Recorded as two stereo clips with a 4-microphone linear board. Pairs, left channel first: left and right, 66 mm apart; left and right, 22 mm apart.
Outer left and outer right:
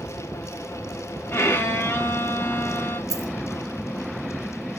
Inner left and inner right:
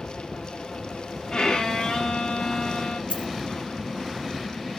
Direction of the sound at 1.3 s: 40° left (ahead or behind).